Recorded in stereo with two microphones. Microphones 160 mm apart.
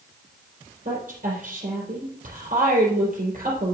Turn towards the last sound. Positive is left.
turn(degrees=-55)  # may be behind; listen again after turning